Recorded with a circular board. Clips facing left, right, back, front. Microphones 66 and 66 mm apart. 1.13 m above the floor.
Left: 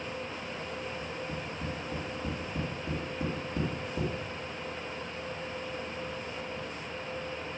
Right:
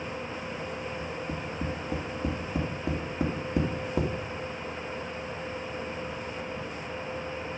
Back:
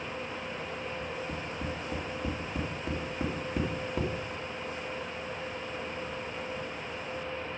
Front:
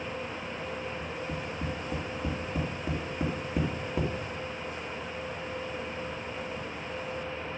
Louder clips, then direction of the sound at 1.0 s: Right 3 dB, front 1 dB; 85° right.